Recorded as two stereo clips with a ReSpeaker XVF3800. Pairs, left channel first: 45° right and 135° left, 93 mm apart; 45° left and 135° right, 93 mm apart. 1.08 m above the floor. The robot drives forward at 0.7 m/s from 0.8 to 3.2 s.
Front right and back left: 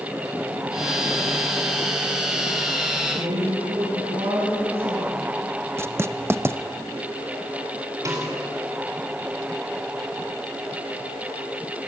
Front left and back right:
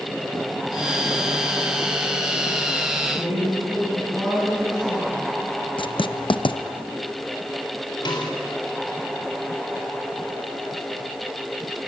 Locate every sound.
3.0 s a woman speaking: 140° left, 9.5 m
5.8 s writing: 70° left, 0.5 m
8.1 s a snare drum: 80° left, 4 m